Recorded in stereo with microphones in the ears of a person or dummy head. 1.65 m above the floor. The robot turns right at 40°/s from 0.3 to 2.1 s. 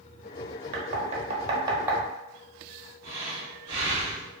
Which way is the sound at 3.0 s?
30° right (ahead or behind).